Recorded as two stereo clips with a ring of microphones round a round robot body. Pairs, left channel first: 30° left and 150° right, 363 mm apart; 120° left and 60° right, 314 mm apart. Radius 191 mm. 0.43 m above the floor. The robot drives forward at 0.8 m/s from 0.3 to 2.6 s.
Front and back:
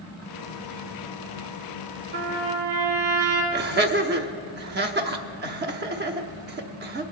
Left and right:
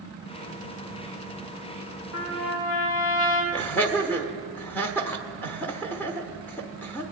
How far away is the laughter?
About 0.8 m.